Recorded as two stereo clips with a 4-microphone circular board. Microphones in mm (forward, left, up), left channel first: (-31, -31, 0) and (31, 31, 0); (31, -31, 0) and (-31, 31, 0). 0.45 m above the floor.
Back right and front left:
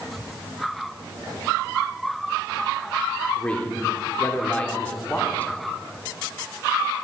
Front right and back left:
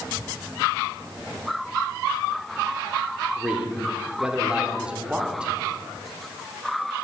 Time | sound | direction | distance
3.4 | a man speaking | 175° right | 0.7 m